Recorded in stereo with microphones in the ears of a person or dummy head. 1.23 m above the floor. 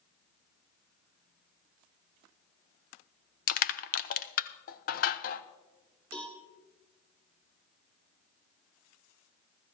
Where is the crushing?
40° left (ahead or behind), 0.5 m.